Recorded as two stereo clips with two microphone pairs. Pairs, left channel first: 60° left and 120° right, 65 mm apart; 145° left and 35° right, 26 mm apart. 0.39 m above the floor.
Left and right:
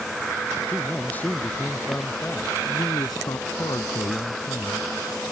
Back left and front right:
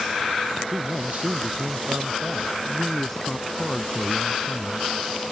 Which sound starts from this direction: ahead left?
A man speaking, at 2.7 s.